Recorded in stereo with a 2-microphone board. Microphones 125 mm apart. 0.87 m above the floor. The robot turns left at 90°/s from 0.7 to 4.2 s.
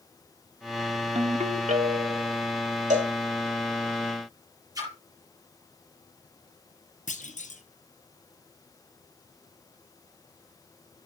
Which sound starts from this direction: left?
A clunk, at 7.1 s.